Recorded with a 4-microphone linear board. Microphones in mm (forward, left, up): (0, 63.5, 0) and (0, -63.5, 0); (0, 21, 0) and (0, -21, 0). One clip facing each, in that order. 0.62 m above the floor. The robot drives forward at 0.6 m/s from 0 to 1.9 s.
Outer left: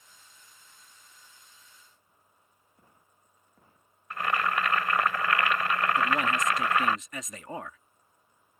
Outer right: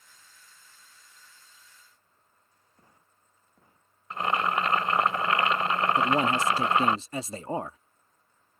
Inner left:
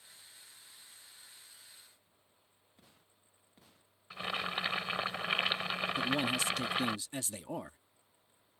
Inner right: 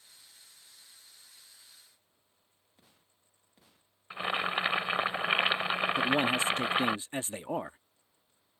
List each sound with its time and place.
4.1 s boiling: 25° right (ahead or behind)
6.0 s a man speaking: 30° right (ahead or behind)